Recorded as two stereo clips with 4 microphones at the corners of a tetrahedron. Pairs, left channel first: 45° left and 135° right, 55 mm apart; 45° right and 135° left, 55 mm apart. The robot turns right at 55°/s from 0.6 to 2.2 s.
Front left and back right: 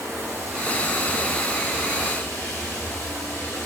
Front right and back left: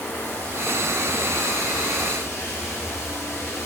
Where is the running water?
90° right, 2.5 m; by 3.7 s 5° right, 2.5 m.